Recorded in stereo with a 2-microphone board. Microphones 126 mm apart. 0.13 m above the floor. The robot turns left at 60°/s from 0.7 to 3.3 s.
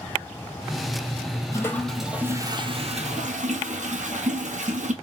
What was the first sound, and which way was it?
A toilet flushing, 25° left.